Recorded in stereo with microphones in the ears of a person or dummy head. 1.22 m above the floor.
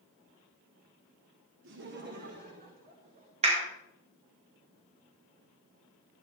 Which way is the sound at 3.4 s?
35° right (ahead or behind).